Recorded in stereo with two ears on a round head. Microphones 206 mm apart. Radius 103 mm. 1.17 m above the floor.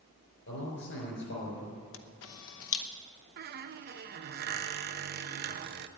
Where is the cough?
No cough in this recording.